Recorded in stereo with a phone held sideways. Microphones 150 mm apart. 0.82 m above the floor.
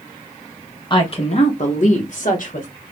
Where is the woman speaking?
30° left (ahead or behind), 0.9 m; by 2.7 s 65° left (ahead or behind), 1.8 m.